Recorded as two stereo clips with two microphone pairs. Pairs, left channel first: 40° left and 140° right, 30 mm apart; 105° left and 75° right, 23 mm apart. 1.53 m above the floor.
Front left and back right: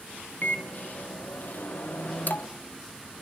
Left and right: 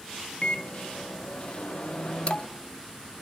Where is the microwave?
55° left, 1.1 m.